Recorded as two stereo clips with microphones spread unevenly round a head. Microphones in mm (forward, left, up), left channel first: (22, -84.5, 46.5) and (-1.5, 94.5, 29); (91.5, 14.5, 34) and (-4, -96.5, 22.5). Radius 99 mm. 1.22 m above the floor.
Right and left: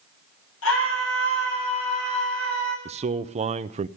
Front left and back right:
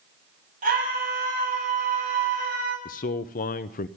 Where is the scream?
105° right, 9.5 m.